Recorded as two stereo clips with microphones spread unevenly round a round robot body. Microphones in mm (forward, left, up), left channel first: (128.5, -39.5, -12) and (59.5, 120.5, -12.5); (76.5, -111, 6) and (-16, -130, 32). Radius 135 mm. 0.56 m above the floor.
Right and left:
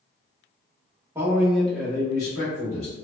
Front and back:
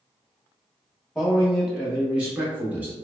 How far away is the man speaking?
About 0.9 m.